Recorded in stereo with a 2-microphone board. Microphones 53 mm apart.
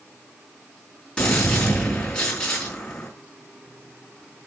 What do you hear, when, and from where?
1.2 s a gunshot: 20° left (ahead or behind), 4 m